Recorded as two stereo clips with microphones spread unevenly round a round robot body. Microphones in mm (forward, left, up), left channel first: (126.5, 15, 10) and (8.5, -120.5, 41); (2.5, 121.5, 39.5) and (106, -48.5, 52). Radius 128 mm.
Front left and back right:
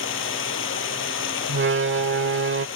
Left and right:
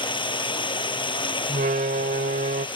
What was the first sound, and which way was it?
Running water, 55° left.